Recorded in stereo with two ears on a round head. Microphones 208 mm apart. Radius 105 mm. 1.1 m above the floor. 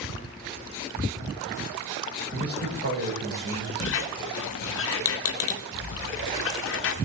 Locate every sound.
2.3 s a man speaking: 45° right (ahead or behind), 4.5 m
3.8 s a squeak: 60° left (ahead or behind), 0.8 m